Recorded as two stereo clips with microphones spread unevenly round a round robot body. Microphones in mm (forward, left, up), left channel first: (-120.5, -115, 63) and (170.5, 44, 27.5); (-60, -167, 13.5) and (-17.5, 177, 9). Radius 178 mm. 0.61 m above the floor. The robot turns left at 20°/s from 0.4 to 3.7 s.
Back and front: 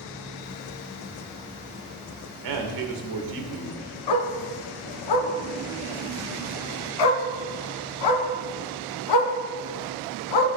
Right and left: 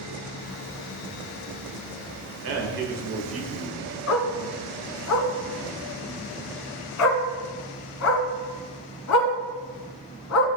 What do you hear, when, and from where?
2.4 s a man speaking: 30° left, 2 m; by 3.9 s 5° left, 2 m
4.1 s a dog barking: 140° right, 1.6 m